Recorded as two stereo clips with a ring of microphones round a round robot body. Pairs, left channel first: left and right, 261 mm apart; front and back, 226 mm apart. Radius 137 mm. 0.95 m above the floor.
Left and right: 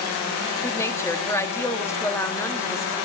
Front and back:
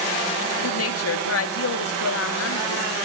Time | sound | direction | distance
0.6 | a woman speaking | 10° left | 2 m